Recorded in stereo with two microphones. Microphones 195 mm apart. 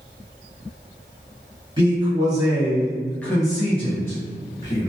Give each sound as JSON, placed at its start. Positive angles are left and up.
{"t": 1.8, "sound": "a man speaking", "side_deg": -25, "distance_m": 1.4}